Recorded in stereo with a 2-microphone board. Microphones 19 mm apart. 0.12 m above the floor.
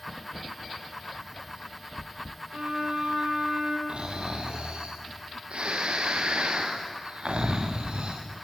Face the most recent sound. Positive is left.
turn(degrees=-80)